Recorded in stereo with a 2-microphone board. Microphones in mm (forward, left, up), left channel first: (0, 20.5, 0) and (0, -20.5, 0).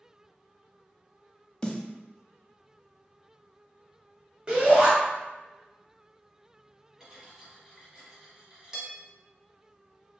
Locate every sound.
1.6 s a snare drum: 20° left (ahead or behind), 0.6 m
4.5 s a shout: 25° right (ahead or behind), 1.0 m
7.0 s cutlery clinking: 15° right (ahead or behind), 1.0 m